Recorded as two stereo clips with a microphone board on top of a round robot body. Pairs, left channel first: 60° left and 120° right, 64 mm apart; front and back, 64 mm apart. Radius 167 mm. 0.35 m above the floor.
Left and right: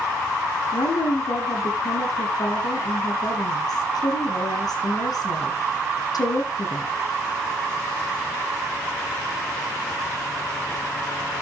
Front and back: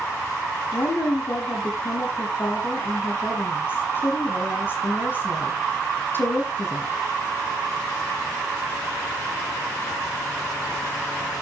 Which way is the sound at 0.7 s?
55° left.